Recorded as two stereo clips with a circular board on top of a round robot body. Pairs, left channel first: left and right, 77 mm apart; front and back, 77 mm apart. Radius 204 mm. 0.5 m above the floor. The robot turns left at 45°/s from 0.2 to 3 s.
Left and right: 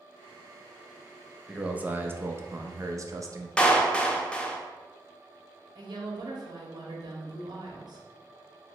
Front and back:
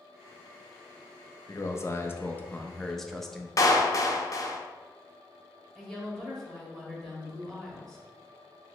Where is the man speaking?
15° right, 0.8 m; by 3.5 s 85° right, 0.8 m.